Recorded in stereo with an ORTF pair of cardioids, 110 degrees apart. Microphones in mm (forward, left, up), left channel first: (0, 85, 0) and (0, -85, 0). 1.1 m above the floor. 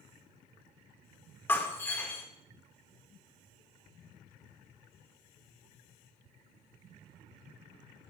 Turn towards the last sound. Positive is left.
turn(degrees=15)